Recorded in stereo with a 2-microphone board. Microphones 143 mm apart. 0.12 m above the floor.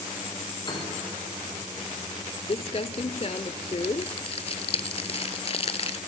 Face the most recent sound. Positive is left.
turn(degrees=45)  # may be behind; listen again after turning